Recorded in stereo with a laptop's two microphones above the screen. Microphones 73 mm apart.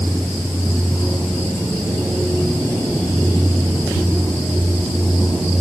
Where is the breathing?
I don't hear breathing.